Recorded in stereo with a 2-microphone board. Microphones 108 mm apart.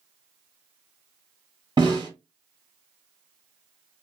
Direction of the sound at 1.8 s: 45° right (ahead or behind).